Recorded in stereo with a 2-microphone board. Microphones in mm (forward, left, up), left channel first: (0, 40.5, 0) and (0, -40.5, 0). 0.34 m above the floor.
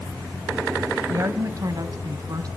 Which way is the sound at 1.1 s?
40° right (ahead or behind).